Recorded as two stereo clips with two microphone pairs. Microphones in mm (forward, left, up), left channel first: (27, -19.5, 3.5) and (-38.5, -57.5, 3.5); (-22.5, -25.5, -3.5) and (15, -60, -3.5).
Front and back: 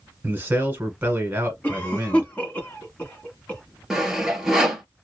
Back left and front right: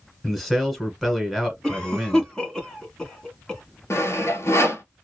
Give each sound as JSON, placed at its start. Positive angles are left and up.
{"t": 0.2, "sound": "a man speaking", "azimuth_deg": -135, "distance_m": 1.2}
{"t": 1.6, "sound": "a cough", "azimuth_deg": 70, "distance_m": 1.4}
{"t": 3.9, "sound": "sawing", "azimuth_deg": 130, "distance_m": 0.8}